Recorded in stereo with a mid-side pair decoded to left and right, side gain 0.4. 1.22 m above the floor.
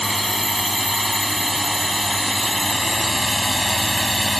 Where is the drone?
Straight ahead.